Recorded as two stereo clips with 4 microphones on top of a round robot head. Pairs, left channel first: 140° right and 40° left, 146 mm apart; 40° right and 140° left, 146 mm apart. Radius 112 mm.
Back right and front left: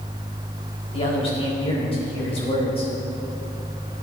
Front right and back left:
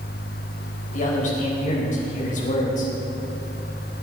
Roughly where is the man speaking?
Right.